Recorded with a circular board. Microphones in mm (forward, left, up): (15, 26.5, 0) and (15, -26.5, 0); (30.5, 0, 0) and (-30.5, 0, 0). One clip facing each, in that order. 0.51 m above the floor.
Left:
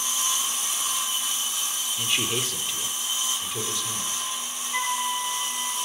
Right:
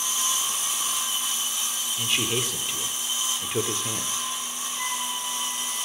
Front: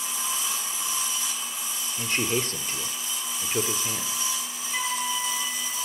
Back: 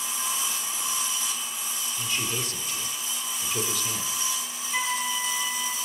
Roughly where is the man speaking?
Ahead.